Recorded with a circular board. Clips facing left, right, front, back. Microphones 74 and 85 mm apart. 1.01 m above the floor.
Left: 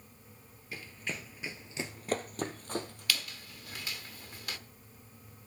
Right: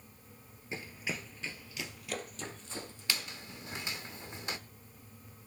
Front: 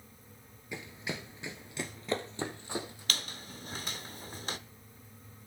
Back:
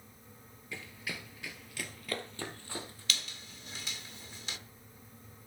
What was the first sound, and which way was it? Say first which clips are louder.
Running footsteps: right 1 dB, front 3 dB; 50° right.